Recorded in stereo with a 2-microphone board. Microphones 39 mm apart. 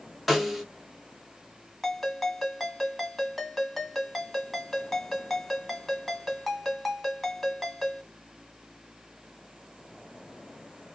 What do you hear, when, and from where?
0.3 s a snare drum: 5° right (ahead or behind), 1.1 m
1.8 s a ringtone: centre (ahead or behind), 1.9 m